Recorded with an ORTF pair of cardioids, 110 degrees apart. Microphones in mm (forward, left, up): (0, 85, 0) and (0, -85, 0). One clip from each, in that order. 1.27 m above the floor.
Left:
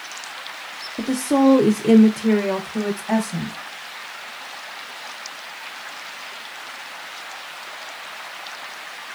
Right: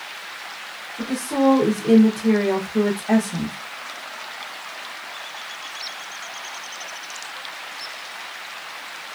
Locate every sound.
1.0 s a woman speaking: 65° left, 0.8 m; by 3.5 s 20° right, 1.2 m